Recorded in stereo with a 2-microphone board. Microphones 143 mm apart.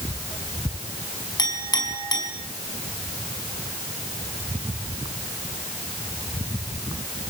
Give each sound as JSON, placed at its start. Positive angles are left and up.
{"t": 1.4, "sound": "a clink", "side_deg": 30, "distance_m": 5.0}